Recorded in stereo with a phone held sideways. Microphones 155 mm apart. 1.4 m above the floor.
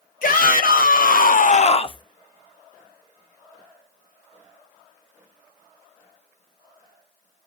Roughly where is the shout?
Left.